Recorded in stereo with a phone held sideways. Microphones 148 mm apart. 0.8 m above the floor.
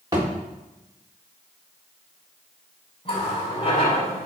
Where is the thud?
25° right (ahead or behind), 3.5 m.